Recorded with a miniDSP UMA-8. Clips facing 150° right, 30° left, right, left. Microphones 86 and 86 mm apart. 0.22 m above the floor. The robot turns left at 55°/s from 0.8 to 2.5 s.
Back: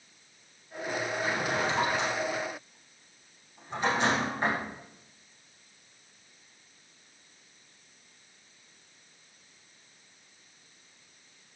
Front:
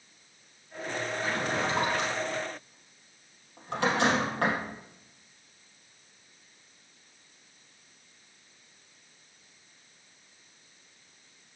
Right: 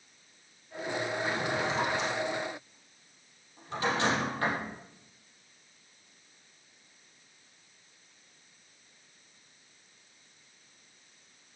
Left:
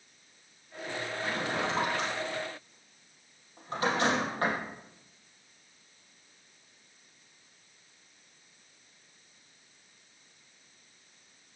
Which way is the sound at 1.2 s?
105° left.